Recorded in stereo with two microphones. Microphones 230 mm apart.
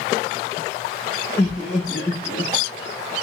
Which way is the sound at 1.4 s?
10° left (ahead or behind).